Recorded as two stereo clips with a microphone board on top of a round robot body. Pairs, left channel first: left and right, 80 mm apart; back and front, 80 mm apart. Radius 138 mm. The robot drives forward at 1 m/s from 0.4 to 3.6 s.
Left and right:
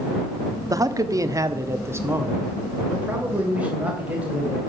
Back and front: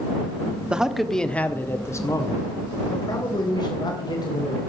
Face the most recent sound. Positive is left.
turn(degrees=-160)